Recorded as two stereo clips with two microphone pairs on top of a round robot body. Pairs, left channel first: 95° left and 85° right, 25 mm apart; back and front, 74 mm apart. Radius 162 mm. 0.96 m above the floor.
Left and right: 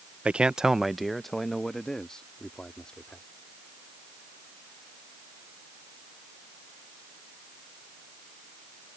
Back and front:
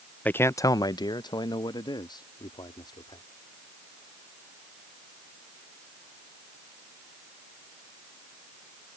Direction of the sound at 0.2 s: 115° right.